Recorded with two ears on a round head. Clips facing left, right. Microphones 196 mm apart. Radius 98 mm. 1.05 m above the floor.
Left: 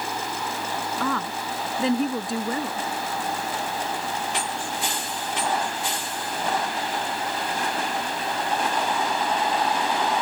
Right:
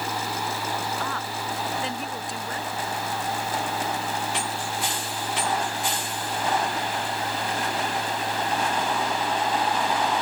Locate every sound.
1.0 s a woman speaking: 75° left (ahead or behind)